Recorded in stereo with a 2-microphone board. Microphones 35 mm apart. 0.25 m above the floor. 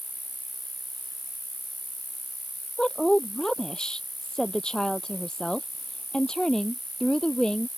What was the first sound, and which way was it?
An insect, 65° left (ahead or behind).